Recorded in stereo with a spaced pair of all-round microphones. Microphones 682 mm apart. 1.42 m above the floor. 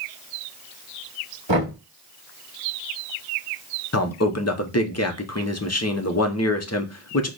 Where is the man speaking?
25° left (ahead or behind), 0.8 m.